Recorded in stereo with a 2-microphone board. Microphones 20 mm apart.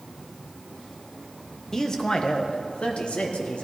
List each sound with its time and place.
1.7 s a man speaking: 25° left (ahead or behind), 1.3 m; by 3.7 s 85° left, 2 m